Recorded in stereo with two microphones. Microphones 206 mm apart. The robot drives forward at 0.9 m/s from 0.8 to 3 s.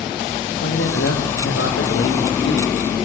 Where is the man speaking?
80° left, 7.5 m; by 2.6 s 70° left (ahead or behind), 7.5 m.